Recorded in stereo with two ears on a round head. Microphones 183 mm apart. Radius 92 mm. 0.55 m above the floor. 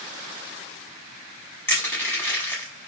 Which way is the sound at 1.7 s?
15° left (ahead or behind).